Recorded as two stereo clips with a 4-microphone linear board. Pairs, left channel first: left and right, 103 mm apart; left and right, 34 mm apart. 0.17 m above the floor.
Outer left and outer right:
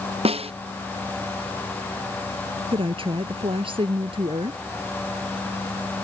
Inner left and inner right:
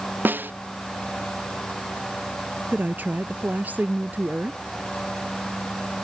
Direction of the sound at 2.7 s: 60° right (ahead or behind).